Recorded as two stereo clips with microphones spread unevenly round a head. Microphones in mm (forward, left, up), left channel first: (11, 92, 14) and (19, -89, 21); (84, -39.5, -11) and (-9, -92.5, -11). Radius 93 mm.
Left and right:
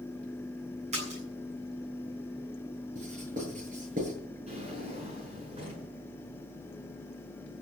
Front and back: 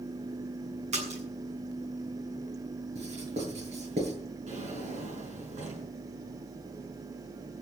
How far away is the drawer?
About 7.5 m.